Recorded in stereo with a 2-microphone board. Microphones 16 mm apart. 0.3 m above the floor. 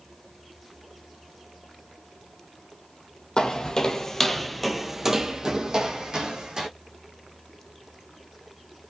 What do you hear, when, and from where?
3.4 s footsteps: 55° left (ahead or behind), 0.7 m; by 6.7 s 60° right (ahead or behind), 1.2 m